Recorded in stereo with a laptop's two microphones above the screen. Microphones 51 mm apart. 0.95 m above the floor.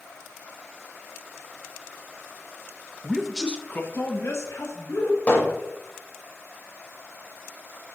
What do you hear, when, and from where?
3.0 s a man speaking: 25° right (ahead or behind), 0.6 m; by 5.2 s 70° left (ahead or behind), 2 m
5.3 s hammering: 35° left (ahead or behind), 4 m